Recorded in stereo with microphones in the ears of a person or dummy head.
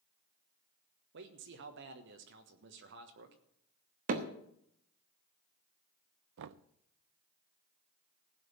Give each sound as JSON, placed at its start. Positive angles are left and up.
{"t": 1.1, "sound": "a man speaking", "side_deg": -60, "distance_m": 1.2}
{"t": 4.1, "sound": "hammering", "side_deg": -45, "distance_m": 1.2}
{"t": 6.4, "sound": "knocking", "side_deg": -70, "distance_m": 0.5}